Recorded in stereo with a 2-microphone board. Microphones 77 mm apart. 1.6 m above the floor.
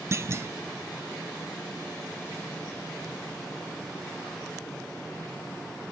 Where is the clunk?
35° right (ahead or behind), 0.5 m.